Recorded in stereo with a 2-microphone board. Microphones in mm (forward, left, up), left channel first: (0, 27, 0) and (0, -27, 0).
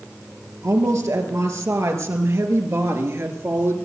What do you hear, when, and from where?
0.6 s a woman speaking: 70° right (ahead or behind), 3.5 m; by 3.8 s 50° right (ahead or behind), 3 m